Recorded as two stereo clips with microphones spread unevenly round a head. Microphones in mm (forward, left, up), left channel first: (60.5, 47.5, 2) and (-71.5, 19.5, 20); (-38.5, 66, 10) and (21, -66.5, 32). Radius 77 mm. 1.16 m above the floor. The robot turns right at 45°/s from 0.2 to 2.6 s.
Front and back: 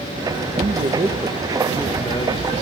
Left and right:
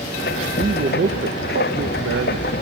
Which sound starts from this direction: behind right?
A man speaking, at 0.6 s.